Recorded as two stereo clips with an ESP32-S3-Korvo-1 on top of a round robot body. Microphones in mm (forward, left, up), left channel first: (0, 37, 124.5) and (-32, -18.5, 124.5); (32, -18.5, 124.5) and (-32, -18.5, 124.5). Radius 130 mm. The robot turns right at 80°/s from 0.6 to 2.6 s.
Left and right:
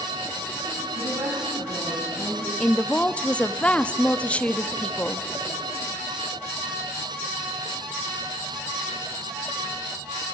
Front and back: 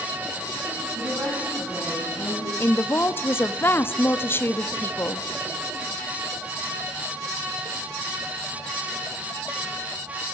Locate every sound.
1.0 s a woman speaking: 145° right, 5 m; by 2.5 s 25° right, 5 m
2.6 s a woman speaking: 5° left, 1.4 m